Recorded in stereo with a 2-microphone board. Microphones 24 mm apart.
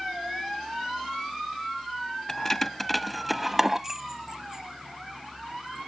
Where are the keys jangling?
25° left (ahead or behind); by 5.9 s 50° right (ahead or behind).